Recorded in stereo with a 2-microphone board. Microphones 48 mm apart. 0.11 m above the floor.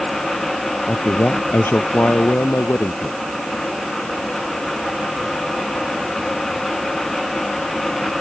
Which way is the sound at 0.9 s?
50° left (ahead or behind).